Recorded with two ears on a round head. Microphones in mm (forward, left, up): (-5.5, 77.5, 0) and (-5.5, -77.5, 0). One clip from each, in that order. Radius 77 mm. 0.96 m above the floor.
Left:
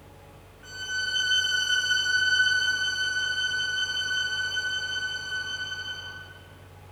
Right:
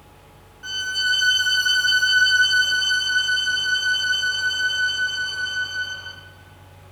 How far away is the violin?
About 4.5 m.